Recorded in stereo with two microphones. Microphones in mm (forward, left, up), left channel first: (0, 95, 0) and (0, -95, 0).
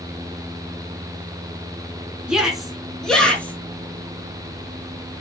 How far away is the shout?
About 4 m.